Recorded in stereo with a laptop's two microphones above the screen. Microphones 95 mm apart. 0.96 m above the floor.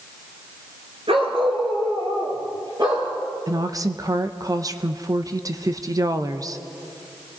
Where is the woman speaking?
35° right (ahead or behind), 0.7 m.